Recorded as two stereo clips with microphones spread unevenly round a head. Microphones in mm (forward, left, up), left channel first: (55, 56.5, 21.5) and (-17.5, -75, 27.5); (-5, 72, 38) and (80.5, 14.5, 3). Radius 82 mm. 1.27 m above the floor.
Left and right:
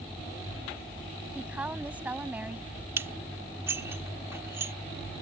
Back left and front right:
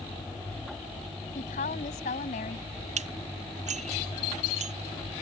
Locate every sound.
1.4 s a woman speaking: 160° left
3.0 s dishes clattering: 45° right